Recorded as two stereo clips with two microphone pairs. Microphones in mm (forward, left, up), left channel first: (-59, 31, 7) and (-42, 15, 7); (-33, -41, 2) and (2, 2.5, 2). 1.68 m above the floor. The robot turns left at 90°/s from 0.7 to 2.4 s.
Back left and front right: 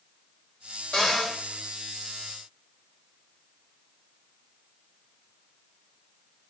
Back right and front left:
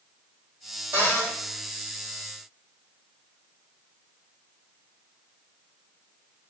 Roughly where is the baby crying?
No baby crying in this recording.